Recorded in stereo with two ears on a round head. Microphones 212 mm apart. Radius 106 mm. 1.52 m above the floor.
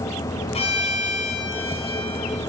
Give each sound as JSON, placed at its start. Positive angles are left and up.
{"t": 0.5, "sound": "a violin", "side_deg": 25, "distance_m": 3.0}